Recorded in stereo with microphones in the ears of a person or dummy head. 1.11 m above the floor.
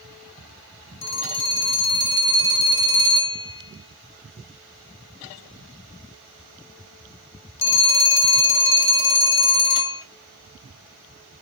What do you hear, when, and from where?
1.0 s a phone ringing: 65° left (ahead or behind), 1.2 m